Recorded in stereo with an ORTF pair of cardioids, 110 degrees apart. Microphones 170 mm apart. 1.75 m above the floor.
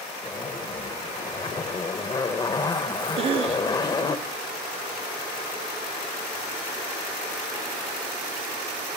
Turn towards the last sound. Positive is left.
turn(degrees=-35)